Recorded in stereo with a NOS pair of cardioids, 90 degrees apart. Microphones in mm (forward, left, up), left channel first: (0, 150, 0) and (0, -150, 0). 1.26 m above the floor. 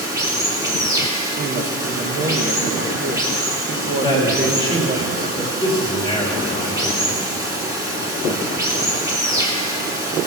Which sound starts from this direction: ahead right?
A woman speaking, at 1.4 s.